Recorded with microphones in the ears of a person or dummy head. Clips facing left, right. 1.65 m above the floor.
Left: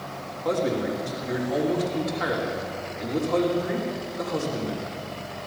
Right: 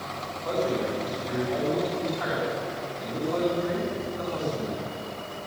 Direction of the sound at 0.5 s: 35° left (ahead or behind).